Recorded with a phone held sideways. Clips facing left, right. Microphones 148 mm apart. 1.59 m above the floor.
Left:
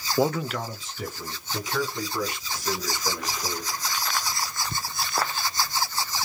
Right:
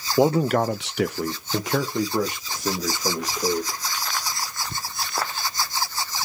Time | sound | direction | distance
0.2 | a man speaking | 15° right (ahead or behind) | 0.6 m